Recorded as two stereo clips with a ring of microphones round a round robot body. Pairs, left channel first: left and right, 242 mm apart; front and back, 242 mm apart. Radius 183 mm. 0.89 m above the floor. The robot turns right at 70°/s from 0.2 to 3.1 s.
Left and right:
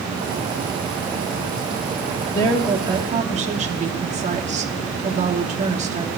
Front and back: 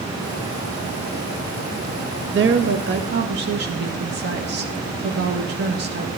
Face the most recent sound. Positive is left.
turn(degrees=-145)